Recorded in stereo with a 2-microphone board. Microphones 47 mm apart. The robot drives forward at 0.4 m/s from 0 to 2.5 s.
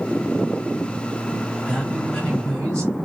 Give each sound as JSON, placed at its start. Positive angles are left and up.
{"t": 1.7, "sound": "a man speaking", "side_deg": 20, "distance_m": 2.5}